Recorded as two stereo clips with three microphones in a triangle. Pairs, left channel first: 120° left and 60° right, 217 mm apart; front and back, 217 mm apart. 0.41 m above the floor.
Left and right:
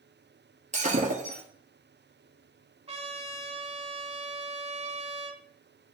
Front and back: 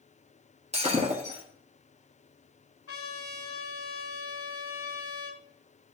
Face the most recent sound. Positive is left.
turn(degrees=5)